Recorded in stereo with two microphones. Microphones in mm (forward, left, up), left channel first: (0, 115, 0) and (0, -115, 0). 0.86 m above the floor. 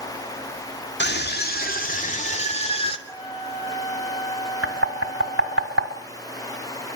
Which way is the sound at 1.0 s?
50° left (ahead or behind).